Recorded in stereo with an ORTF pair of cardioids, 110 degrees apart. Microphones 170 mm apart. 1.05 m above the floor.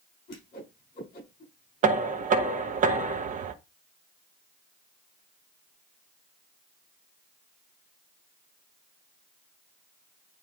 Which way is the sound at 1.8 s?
55° right.